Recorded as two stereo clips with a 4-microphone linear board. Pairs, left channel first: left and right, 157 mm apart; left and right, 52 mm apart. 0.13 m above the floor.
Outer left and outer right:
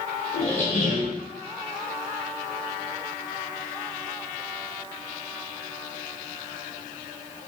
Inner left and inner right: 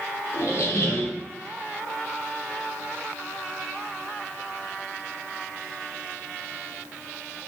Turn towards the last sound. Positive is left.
turn(degrees=50)  # may be behind; listen again after turning